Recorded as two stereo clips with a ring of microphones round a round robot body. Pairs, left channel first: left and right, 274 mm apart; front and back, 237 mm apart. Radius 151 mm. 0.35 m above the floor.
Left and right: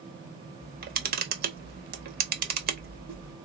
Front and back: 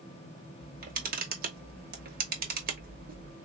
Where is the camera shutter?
140° right, 0.9 m.